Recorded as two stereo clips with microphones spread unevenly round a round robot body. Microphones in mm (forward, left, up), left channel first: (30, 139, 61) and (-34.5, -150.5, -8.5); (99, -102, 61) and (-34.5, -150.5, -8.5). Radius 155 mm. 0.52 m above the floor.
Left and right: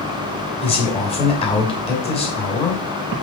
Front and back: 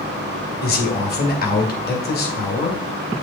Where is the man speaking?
Straight ahead, 3 m.